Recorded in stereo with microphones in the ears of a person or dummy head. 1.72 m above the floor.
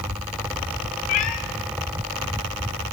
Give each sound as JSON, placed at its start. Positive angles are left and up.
{"t": 1.1, "sound": "a cat meowing", "side_deg": 40, "distance_m": 1.1}